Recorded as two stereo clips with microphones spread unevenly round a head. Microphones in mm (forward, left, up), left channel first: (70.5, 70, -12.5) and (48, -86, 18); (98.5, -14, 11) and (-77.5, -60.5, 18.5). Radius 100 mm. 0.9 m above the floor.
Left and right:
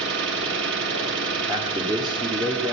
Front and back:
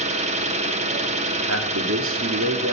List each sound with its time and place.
0.0 s an engine running: 110° right, 1.4 m
1.5 s a man speaking: 170° right, 1.7 m